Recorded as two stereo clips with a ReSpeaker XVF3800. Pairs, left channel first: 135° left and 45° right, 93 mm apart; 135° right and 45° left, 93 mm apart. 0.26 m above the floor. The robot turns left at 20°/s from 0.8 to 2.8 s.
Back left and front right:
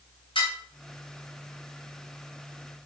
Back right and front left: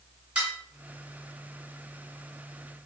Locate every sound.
0.3 s dishes clattering: 120° left, 1.9 m